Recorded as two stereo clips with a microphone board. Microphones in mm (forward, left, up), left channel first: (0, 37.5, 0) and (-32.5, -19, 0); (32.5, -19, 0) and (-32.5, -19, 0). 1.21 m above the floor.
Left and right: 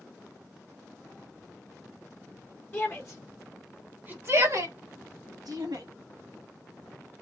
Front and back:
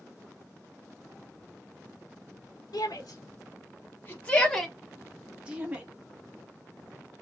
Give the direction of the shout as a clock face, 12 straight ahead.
1 o'clock.